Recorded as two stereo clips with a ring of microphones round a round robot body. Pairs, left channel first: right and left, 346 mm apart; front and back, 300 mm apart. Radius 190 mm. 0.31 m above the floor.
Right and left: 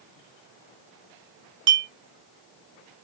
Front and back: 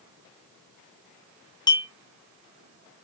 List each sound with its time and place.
1.7 s a clink: 70° left, 0.6 m